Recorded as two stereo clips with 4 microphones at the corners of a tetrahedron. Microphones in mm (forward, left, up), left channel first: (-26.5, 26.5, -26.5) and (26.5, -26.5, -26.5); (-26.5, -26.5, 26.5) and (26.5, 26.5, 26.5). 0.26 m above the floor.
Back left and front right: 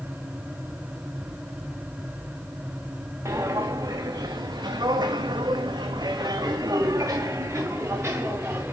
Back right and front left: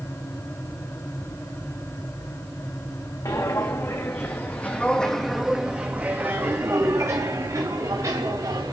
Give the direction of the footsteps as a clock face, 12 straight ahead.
3 o'clock.